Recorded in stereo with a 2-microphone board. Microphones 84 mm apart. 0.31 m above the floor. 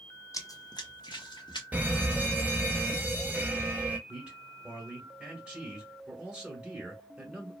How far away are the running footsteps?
About 0.5 m.